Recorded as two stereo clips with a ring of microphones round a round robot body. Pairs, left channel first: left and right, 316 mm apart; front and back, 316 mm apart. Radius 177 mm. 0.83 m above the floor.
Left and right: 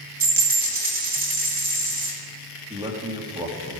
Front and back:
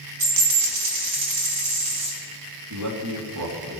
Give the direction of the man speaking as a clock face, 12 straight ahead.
5 o'clock.